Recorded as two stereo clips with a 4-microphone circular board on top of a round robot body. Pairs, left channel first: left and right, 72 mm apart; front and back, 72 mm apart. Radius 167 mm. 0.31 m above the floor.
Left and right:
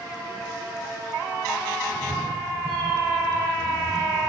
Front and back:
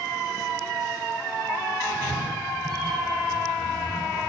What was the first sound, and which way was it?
A cat meowing, 175° left.